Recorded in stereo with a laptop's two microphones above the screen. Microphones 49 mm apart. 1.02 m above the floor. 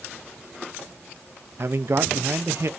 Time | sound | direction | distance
1.6 | a man speaking | 60° right (ahead or behind) | 0.9 m